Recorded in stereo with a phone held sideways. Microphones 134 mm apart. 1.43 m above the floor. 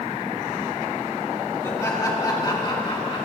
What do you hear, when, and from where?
1.6 s laughter: 20° left (ahead or behind), 2.0 m; by 3.2 s 40° left (ahead or behind), 2.5 m